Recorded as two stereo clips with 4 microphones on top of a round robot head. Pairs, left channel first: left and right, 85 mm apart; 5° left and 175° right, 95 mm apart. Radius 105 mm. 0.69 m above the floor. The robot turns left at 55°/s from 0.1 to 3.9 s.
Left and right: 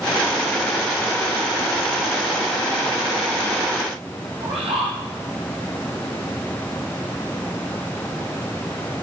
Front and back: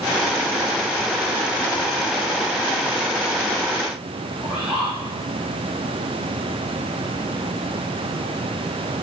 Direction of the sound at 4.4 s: 90° right.